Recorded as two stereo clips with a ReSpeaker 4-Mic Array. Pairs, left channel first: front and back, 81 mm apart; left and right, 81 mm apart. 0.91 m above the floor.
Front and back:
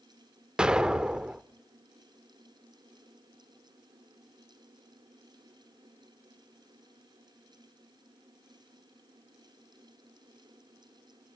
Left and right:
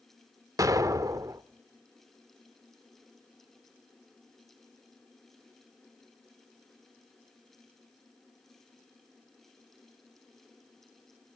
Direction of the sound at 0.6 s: 105° right.